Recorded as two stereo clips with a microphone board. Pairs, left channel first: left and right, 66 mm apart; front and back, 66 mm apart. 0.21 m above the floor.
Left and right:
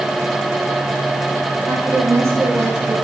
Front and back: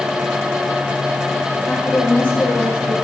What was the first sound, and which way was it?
A woman speaking, 55° right.